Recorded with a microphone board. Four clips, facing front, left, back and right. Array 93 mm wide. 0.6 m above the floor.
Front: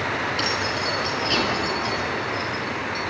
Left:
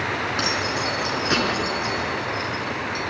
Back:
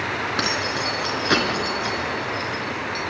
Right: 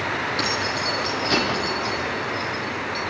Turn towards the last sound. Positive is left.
turn(degrees=165)